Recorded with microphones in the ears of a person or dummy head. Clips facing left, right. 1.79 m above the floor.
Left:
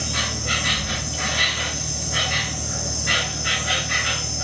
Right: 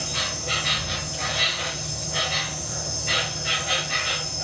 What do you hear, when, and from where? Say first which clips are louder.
0.0 s an insect: left 3 dB; 60° left (ahead or behind), 3.5 m